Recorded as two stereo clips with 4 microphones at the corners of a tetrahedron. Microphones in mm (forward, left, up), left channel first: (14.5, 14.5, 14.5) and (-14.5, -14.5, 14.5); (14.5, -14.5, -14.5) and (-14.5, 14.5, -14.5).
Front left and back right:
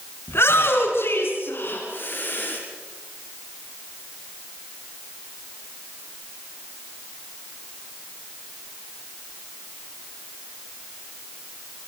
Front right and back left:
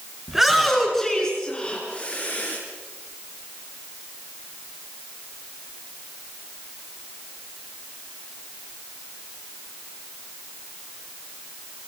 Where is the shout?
50° left, 4 m; by 2.6 s straight ahead, 4.5 m.